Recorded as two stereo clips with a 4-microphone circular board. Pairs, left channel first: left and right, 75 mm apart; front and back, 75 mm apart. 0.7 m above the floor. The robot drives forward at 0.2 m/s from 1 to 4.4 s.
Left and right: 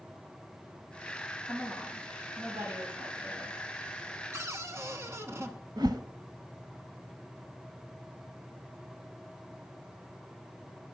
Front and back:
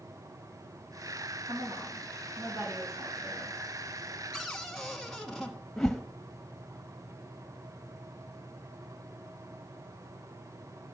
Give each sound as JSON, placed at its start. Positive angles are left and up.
{"t": 1.5, "sound": "a woman speaking", "azimuth_deg": -145, "distance_m": 4.0}
{"t": 4.3, "sound": "a cupboard door", "azimuth_deg": -80, "distance_m": 1.1}
{"t": 5.8, "sound": "a whoosh", "azimuth_deg": -85, "distance_m": 0.8}